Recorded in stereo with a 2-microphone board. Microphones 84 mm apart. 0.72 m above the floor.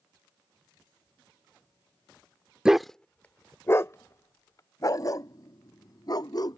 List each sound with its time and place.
2.6 s a dog barking: 10° right (ahead or behind); by 6.6 s 50° left (ahead or behind)